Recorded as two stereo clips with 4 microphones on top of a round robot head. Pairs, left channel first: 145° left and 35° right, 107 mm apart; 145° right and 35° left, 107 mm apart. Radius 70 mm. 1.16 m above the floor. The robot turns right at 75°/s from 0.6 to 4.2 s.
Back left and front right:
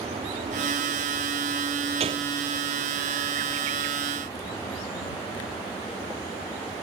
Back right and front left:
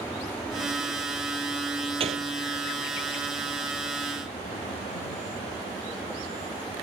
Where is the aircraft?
70° right; by 6.8 s 155° right.